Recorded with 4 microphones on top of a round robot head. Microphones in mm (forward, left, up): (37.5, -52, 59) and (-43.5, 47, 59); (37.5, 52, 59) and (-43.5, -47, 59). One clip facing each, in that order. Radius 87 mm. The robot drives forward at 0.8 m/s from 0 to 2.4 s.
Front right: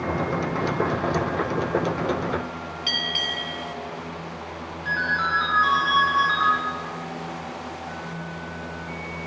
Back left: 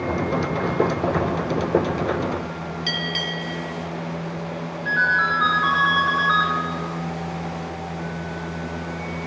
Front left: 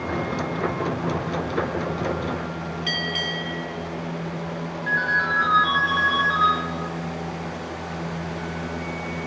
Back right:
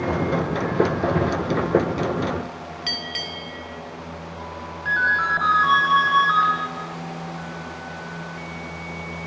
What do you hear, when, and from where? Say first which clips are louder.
2.9 s a bell: back left 3 dB, front left 4 dB; 175° left, 1.6 m
4.8 s a ringtone: back left 3 dB, back right 3 dB; 130° right, 9.5 m